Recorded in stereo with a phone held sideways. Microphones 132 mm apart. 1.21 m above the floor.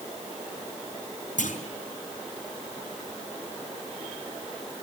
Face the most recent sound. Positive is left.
turn(degrees=75)  # may be behind; listen again after turning